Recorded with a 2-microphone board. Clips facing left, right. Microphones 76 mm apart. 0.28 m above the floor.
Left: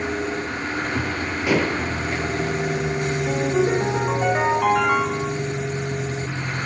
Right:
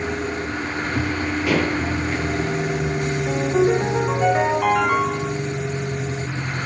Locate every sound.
1.5 s dishes clattering: 15° left (ahead or behind), 3.5 m
3.3 s a ringtone: 5° left (ahead or behind), 4.5 m